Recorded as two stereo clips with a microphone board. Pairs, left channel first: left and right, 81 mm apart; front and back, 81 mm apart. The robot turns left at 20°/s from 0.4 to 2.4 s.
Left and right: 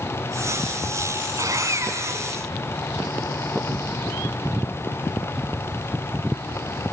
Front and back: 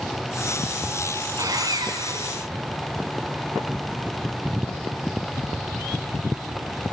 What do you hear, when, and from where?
1.4 s sawing: 135° right, 3 m; by 2.4 s 155° right, 3 m